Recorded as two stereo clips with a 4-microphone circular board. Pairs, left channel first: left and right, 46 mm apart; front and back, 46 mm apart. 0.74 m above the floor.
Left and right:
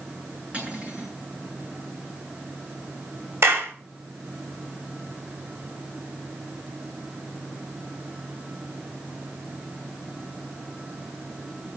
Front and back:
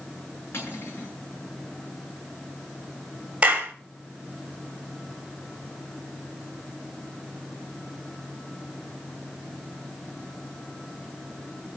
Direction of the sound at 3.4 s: 120° right.